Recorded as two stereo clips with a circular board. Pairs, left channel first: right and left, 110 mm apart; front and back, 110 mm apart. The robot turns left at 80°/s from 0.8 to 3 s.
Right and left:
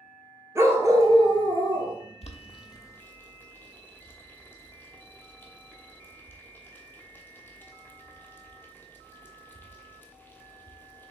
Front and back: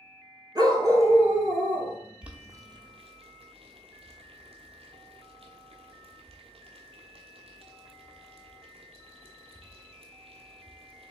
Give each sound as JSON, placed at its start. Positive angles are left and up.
{"t": 0.6, "sound": "a dog barking", "azimuth_deg": 145, "distance_m": 0.8}
{"t": 2.2, "sound": "boiling", "azimuth_deg": -100, "distance_m": 0.9}